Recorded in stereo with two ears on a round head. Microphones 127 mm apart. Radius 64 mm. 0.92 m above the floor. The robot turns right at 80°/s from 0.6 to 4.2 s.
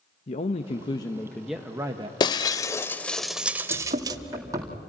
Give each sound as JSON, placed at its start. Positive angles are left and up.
{"t": 0.3, "sound": "a man speaking", "azimuth_deg": 110, "distance_m": 1.0}
{"t": 2.2, "sound": "breaking glass", "side_deg": 30, "distance_m": 0.7}
{"t": 3.7, "sound": "running footsteps", "side_deg": -60, "distance_m": 2.5}